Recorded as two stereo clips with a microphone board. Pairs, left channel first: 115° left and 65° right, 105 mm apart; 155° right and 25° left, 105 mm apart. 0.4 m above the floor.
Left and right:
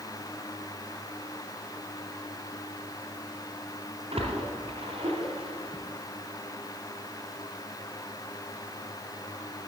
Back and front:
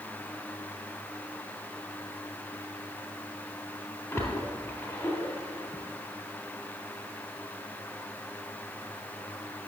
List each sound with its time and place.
4.1 s a splash: 95° right, 3 m